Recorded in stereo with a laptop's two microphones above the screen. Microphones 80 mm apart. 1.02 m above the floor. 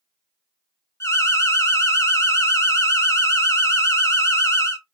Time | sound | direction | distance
1.0 | an alarm | 35° left (ahead or behind) | 0.9 m